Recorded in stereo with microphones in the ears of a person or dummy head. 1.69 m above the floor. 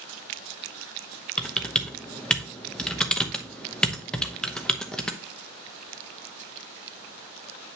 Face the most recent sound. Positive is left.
turn(degrees=10)  # may be behind; listen again after turning